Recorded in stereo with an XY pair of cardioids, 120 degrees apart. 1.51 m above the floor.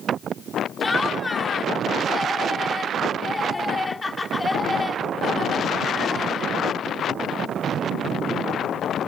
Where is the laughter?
15° left.